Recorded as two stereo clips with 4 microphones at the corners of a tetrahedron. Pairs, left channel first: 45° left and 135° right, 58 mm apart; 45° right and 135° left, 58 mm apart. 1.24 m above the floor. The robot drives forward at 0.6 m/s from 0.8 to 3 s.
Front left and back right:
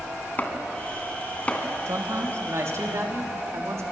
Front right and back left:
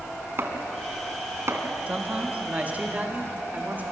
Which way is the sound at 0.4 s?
95° left.